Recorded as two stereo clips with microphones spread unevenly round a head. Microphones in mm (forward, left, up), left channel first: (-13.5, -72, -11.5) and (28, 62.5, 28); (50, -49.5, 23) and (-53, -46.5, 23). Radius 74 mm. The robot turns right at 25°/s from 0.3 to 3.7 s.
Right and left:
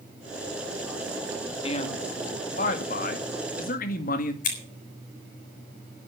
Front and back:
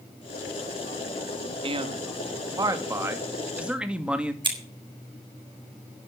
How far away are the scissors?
About 6 m.